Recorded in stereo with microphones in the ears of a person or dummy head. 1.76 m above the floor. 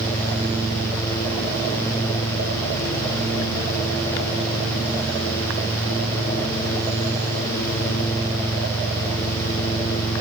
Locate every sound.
Only background noise.